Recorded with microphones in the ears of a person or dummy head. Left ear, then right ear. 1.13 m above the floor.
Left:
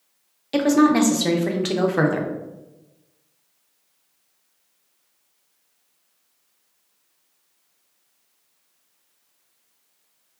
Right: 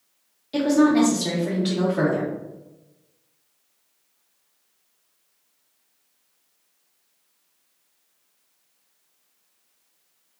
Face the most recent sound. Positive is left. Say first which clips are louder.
# left 2 dB
turn(degrees=50)  # may be behind; listen again after turning